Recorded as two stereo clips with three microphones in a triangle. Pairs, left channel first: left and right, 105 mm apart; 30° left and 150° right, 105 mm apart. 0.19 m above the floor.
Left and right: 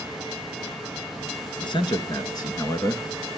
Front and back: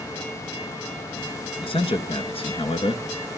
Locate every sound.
1.6 s a man speaking: 55° left, 2.5 m; by 3.0 s 35° left, 2.5 m